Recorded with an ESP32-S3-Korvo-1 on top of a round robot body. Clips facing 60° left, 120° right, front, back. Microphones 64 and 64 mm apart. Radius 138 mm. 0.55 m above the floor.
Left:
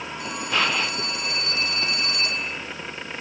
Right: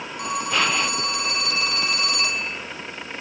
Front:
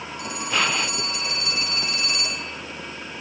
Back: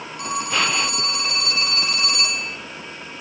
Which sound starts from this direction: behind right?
A phone ringing, at 0.2 s.